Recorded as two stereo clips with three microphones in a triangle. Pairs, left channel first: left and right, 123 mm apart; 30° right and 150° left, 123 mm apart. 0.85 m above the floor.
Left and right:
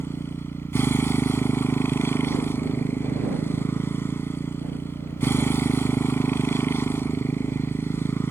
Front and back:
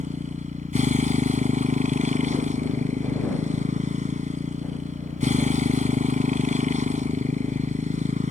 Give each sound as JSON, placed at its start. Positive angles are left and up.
{"t": 0.0, "sound": "a motorcycle", "azimuth_deg": 160}